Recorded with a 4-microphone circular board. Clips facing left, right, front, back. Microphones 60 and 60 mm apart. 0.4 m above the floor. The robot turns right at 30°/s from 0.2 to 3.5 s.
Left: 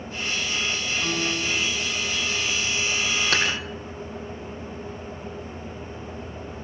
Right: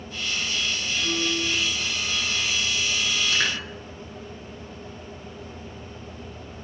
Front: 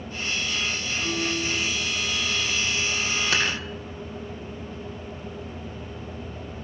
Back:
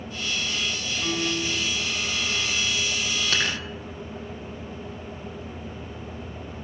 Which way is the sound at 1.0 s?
110° left.